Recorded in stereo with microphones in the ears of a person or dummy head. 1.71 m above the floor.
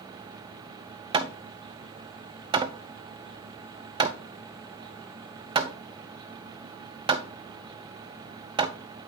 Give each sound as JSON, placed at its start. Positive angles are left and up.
{"t": 1.1, "sound": "hammering", "side_deg": -20, "distance_m": 0.6}